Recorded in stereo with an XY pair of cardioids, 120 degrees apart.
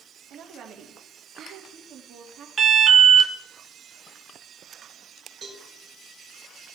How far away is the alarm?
About 1.8 m.